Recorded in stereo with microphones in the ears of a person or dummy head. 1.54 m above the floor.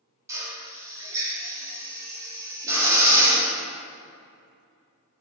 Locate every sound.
0.3 s a drill: 20° right (ahead or behind), 1.5 m